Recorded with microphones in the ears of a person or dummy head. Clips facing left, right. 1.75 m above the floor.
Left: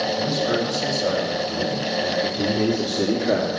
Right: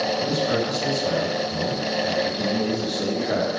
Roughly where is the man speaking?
Left.